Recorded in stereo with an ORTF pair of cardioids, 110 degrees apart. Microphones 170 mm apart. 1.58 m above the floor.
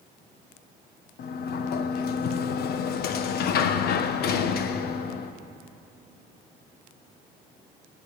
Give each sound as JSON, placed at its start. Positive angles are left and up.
{"t": 1.2, "sound": "a sliding door", "azimuth_deg": 65, "distance_m": 1.4}